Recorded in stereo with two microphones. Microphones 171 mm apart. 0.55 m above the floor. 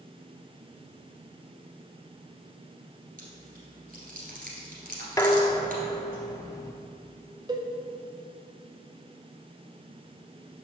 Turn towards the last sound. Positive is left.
turn(degrees=-25)  # may be behind; listen again after turning